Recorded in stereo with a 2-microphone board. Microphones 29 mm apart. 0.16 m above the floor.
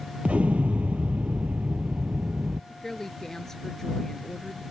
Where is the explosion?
55° right (ahead or behind).